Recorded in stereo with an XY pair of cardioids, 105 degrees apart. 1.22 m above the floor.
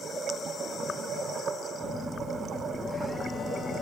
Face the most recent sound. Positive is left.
turn(degrees=15)